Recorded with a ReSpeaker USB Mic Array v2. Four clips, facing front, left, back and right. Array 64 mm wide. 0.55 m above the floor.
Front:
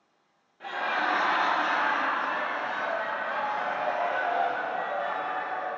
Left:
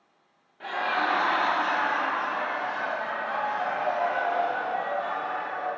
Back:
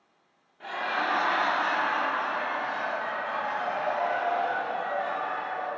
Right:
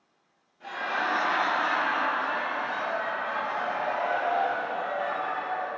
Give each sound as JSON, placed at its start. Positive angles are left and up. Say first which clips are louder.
{"t": 0.6, "sound": "laughter", "louder": "left 3 dB, front 1 dB", "azimuth_deg": 95, "distance_m": 0.8}